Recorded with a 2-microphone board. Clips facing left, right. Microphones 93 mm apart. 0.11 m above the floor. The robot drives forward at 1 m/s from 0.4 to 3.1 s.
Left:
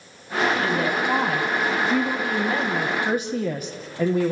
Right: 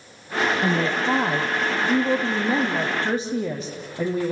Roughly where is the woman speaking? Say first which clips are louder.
Right 1 dB; right.